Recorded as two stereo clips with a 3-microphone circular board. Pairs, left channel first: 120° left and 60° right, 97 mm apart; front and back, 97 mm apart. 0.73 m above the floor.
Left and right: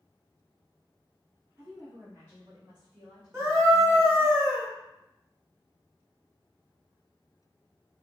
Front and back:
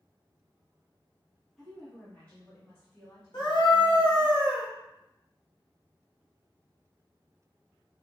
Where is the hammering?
I don't hear hammering.